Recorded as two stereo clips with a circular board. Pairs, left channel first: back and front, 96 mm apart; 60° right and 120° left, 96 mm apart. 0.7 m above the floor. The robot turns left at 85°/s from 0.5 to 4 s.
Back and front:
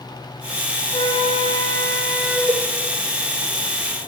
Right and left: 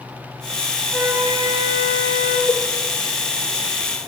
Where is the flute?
155° right, 2.5 m; by 2.4 s 80° left, 2.5 m.